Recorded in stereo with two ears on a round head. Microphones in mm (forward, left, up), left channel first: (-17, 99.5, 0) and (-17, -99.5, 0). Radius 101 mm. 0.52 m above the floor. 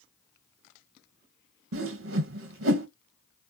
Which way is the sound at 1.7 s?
65° right (ahead or behind).